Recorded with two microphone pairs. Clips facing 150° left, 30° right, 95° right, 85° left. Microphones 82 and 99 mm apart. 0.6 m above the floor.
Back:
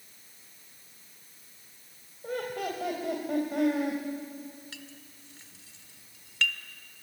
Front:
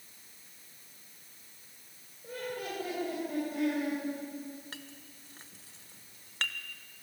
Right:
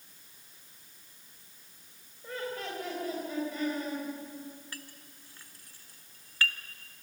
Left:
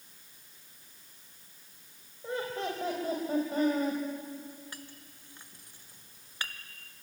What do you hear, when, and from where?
2.2 s laughter: 150° left, 3.5 m; by 4.0 s 120° left, 4 m
4.7 s a clink: 15° left, 1.1 m